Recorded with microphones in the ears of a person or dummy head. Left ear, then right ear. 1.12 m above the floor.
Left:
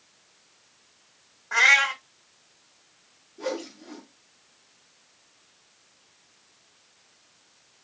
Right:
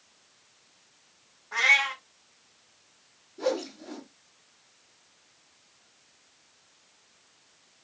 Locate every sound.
1.5 s a cat meowing: 60° left (ahead or behind), 1.3 m
3.4 s a whoosh: 25° right (ahead or behind), 2.0 m